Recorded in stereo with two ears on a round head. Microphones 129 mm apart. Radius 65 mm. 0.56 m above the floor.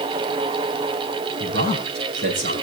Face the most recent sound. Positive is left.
turn(degrees=-65)  # may be behind; listen again after turning